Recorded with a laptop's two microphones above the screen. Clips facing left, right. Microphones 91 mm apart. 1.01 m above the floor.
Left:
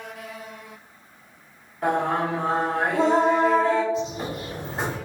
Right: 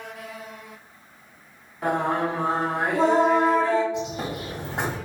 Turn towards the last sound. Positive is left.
turn(degrees=-70)  # may be behind; listen again after turning